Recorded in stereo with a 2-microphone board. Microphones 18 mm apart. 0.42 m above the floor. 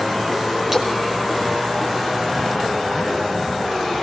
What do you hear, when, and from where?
0.7 s a splash: 20° right (ahead or behind), 6 m